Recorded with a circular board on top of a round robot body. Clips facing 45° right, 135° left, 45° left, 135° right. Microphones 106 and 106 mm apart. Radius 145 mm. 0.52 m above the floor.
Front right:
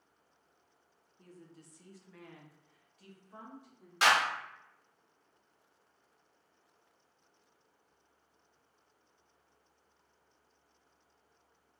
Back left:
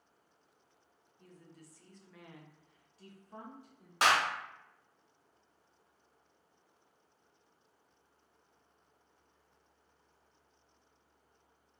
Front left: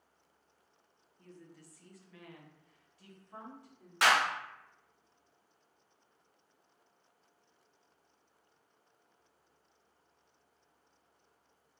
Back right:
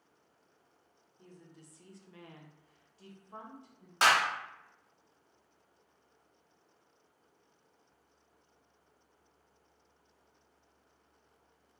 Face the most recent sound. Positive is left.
turn(degrees=170)